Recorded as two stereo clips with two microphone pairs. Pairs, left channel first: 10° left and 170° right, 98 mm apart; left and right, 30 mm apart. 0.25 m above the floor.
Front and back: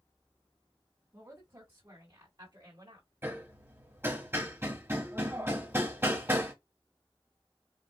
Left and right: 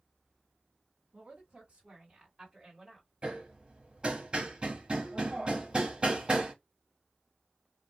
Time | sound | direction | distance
1.1 | a woman speaking | 125° right | 2 m
3.2 | hammering | 120° right | 1.0 m